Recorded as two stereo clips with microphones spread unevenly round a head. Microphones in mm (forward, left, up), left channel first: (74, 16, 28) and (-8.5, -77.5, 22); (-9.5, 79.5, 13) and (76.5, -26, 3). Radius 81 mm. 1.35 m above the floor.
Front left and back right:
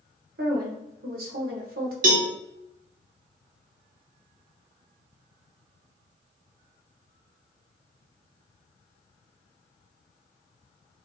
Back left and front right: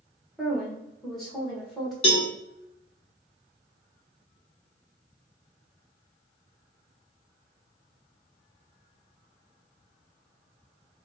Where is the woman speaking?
140° right, 1.0 m.